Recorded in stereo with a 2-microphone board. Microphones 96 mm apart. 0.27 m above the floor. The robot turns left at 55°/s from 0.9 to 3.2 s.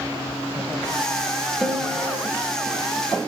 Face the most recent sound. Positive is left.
turn(degrees=-85)